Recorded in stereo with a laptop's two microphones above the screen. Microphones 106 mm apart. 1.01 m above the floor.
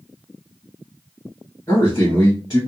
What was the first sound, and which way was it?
A man speaking, 30° left (ahead or behind).